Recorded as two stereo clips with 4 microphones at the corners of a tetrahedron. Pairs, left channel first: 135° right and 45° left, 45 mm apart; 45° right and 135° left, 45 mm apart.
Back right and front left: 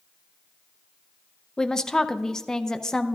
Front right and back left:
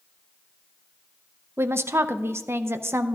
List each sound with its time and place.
1.6 s a woman speaking: 150° left, 0.5 m